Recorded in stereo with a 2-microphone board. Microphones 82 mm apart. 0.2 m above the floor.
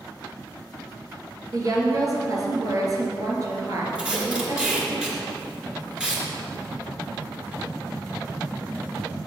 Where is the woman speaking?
45° right (ahead or behind), 3 m.